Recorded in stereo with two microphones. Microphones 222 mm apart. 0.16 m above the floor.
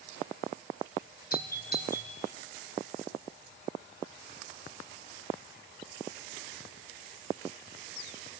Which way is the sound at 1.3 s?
45° left (ahead or behind).